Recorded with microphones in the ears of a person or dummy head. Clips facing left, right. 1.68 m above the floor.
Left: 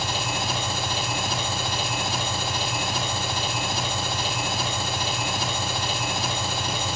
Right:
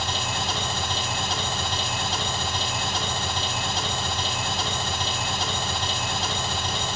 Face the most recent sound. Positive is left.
turn(degrees=10)  # may be behind; listen again after turning